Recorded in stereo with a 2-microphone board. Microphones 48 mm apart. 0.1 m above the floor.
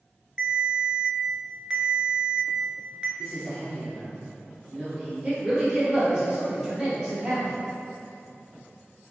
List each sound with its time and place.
0.4 s a ringtone: 25° right (ahead or behind), 0.6 m
3.2 s a man speaking: 25° right (ahead or behind), 1.3 m
5.2 s a woman speaking: 25° right (ahead or behind), 1.7 m